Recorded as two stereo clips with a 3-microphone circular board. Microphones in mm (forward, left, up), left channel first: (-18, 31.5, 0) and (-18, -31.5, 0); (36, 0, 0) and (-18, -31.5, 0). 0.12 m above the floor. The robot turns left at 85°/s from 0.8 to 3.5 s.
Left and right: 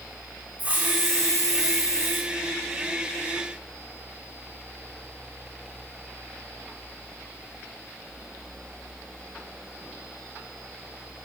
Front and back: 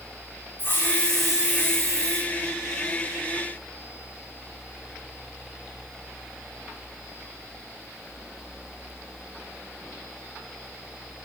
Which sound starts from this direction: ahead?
A hiss, at 0.6 s.